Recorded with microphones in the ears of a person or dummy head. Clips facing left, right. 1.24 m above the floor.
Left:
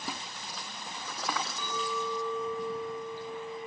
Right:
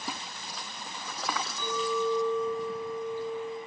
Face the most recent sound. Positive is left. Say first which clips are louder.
# right 5 dB
turn(degrees=5)  # may be behind; listen again after turning